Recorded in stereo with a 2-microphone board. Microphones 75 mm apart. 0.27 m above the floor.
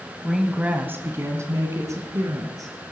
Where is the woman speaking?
5° right (ahead or behind), 1.2 m; by 2.7 s 50° right (ahead or behind), 3.5 m.